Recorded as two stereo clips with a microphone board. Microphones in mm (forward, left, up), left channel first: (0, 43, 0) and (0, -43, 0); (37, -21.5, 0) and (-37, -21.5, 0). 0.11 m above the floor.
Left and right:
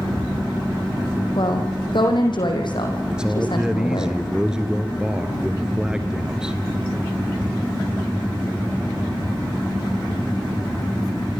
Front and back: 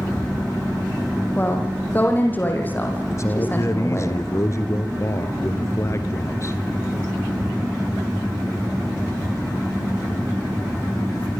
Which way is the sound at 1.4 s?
65° left.